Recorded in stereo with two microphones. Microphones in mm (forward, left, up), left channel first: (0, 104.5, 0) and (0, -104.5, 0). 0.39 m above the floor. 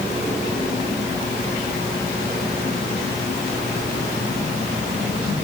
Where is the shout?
I don't hear a shout.